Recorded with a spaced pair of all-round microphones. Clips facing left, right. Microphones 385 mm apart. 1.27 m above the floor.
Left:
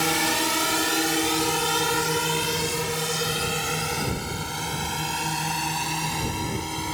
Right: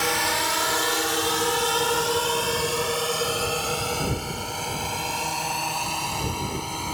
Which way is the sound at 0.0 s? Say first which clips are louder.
Left 3 dB; 50° left (ahead or behind).